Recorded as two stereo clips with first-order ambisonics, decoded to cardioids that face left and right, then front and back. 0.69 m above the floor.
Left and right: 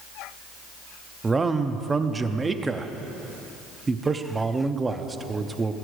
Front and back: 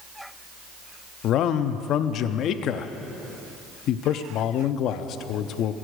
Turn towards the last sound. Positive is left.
turn(degrees=-20)